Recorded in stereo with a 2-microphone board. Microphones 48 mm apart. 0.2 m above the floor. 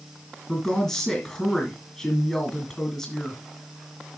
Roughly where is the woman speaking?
Centre.